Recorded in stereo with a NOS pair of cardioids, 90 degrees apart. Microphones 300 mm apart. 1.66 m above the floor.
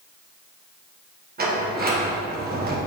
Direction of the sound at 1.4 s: 30° right.